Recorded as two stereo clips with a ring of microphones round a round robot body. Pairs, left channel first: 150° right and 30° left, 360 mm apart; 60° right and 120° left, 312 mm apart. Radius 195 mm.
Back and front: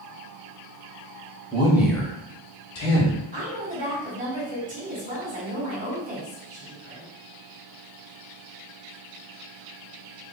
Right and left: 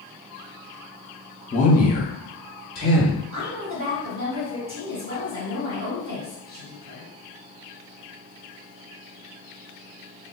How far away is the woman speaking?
About 2.0 m.